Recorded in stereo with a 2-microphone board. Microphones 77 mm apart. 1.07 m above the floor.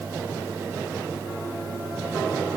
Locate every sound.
Only background noise.